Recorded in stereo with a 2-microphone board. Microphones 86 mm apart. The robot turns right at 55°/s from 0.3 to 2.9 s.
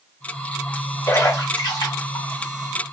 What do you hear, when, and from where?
1.1 s a splash: 40° left (ahead or behind), 1.2 m; by 2.3 s 50° left (ahead or behind), 1.2 m